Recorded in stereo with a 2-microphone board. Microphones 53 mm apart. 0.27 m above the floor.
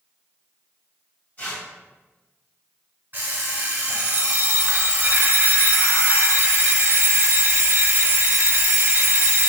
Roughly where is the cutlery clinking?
I don't hear cutlery clinking.